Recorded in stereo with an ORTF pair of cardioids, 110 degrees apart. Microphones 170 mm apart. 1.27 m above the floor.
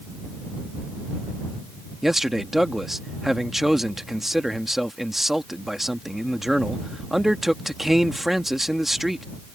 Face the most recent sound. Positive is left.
turn(degrees=0)